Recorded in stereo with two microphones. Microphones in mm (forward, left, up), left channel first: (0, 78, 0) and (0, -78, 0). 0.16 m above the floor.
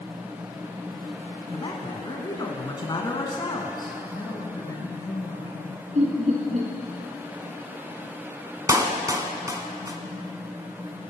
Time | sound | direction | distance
1.5 | a man speaking | 30° left (ahead or behind) | 1.4 m
4.1 | a woman speaking | 25° left (ahead or behind) | 3.5 m
6.0 | laughter | 55° right (ahead or behind) | 2.5 m
8.7 | a clap | 25° right (ahead or behind) | 1.1 m